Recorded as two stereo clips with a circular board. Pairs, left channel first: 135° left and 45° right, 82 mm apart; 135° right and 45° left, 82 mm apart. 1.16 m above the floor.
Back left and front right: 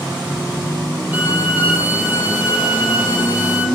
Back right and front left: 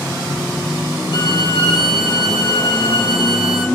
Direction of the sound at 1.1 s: 115° right.